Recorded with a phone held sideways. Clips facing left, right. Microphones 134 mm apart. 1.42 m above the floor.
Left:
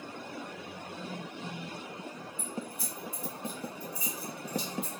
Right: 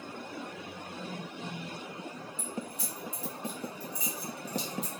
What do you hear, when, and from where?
2.4 s keys jangling: 65° right (ahead or behind), 1.4 m